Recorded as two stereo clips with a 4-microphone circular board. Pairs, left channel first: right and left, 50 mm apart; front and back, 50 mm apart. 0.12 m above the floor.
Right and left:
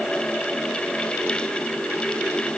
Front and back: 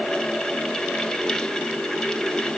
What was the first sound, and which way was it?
Only background noise.